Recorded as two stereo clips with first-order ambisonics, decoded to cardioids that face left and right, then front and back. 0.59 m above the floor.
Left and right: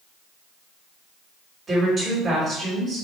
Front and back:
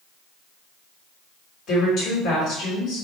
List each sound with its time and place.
1.7 s a woman speaking: 25° right, 1.5 m